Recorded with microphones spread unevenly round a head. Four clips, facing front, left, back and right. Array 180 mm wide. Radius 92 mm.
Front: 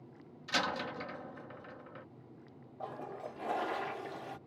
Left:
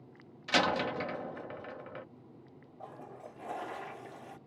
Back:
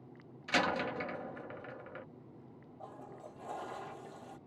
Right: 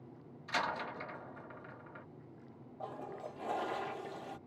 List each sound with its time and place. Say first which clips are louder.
0.5 s a door slam: left 7 dB, back 3 dB; 110° left
2.8 s a toilet flushing: right 3 dB, front 7 dB; 35° right